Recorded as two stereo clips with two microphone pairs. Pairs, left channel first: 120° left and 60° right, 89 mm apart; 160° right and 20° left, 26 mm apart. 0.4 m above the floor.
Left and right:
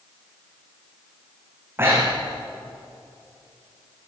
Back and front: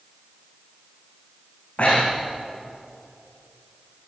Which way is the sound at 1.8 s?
125° right.